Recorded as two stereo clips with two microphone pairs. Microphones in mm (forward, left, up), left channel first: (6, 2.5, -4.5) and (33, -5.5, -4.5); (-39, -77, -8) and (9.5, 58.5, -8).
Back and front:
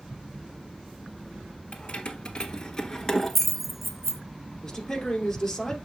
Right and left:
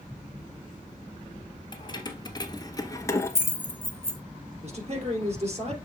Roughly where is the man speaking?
Left.